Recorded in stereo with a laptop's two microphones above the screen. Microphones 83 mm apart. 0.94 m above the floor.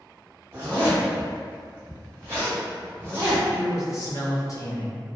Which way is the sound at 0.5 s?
30° right (ahead or behind).